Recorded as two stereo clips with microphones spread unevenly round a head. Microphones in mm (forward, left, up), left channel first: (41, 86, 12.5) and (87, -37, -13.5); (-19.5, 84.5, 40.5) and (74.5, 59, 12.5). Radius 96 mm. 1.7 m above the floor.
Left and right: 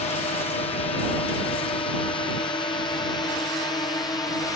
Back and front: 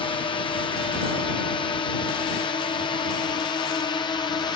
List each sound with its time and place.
0.0 s a drone: 150° left; by 4.6 s 175° left